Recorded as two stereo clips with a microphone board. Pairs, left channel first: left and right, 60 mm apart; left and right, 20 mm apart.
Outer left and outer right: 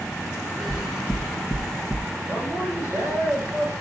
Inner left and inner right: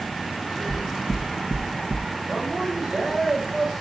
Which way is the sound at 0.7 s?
10° left (ahead or behind).